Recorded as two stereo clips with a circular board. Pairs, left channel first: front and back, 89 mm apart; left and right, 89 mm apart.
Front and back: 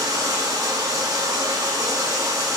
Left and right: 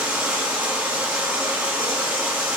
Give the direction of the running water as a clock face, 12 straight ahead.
5 o'clock.